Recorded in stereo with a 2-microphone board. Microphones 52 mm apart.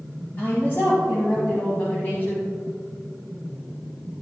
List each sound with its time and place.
0.4 s a woman speaking: 40° left (ahead or behind), 2 m